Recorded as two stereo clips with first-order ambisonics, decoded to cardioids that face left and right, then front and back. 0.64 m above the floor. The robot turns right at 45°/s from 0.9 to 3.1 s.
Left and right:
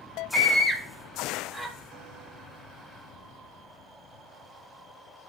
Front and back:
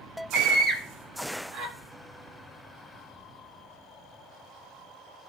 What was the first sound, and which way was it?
A scream, 145° left.